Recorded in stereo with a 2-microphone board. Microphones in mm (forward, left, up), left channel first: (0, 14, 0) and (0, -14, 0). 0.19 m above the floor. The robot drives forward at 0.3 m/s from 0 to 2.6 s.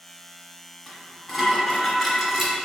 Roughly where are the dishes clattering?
Centre.